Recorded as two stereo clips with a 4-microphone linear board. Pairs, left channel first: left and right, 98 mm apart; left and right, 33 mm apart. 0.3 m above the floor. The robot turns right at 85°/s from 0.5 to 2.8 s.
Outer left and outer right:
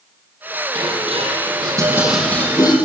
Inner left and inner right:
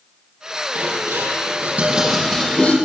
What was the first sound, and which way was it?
Dishes clattering, 130° right.